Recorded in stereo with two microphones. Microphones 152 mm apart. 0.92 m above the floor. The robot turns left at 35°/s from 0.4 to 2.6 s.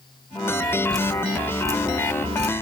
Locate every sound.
0.9 s dripping: 5° left (ahead or behind), 1.2 m; by 2.5 s 50° right (ahead or behind), 1.2 m